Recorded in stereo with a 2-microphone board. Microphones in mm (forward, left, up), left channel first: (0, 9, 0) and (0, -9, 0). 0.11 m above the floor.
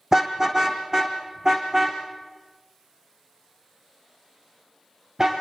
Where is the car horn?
30° right (ahead or behind), 3 m; by 5.3 s 40° right (ahead or behind), 8.5 m.